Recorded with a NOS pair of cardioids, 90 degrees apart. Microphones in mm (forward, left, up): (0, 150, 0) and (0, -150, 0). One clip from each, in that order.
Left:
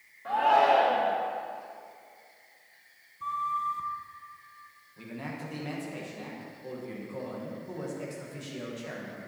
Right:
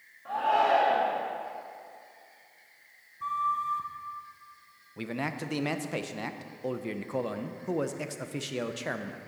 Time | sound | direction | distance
0.2 | a shout | 30° left | 1.5 m
3.2 | a flute | 5° right | 0.8 m
5.0 | a man speaking | 60° right | 0.9 m